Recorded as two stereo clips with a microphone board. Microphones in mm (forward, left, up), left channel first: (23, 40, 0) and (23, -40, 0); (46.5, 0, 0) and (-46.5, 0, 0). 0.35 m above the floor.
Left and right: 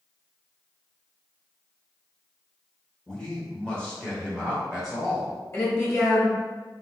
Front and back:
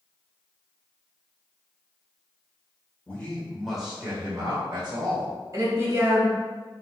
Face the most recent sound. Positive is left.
turn(degrees=135)